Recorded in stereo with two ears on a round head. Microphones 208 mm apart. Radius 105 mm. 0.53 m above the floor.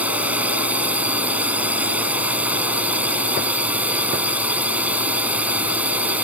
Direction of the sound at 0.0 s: 5° right (ahead or behind).